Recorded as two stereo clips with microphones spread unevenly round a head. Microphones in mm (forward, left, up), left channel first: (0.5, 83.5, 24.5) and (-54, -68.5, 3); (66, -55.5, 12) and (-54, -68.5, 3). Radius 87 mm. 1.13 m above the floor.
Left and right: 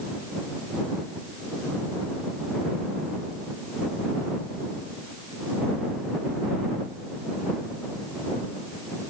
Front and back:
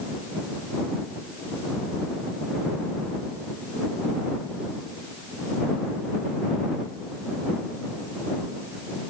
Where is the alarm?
I don't hear an alarm.